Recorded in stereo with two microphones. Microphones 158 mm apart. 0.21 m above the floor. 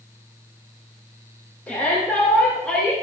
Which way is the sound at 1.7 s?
10° left (ahead or behind).